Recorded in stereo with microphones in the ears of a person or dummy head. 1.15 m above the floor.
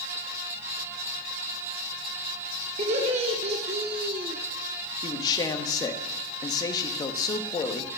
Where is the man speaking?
20° left (ahead or behind), 1.2 m.